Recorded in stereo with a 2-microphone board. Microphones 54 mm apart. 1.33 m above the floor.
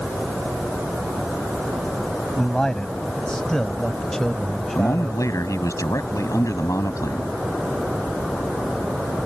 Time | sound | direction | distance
2.4 | a man speaking | 15° left (ahead or behind) | ?
4.8 | a man speaking | 85° left | ?